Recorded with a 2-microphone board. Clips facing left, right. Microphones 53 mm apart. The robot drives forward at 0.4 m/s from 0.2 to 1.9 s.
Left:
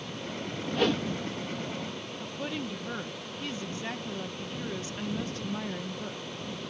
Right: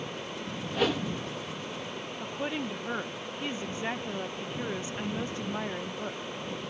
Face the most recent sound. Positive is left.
turn(degrees=-20)  # may be behind; listen again after turning